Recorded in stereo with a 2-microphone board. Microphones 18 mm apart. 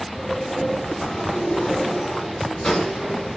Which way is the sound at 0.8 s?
60° left (ahead or behind).